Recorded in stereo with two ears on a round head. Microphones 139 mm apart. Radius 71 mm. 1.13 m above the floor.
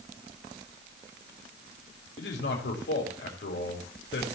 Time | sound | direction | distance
2.2 | a man speaking | 80° left | 4 m